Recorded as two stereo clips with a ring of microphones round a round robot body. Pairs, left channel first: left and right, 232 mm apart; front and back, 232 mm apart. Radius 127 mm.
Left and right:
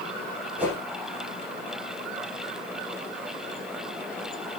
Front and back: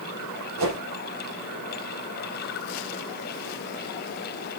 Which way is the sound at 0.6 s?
175° right.